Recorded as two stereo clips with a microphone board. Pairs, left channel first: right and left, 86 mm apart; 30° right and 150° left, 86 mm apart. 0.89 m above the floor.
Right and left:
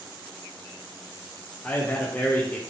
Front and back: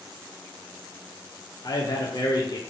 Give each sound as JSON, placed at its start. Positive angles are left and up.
{"t": 1.6, "sound": "a man speaking", "azimuth_deg": -25, "distance_m": 0.6}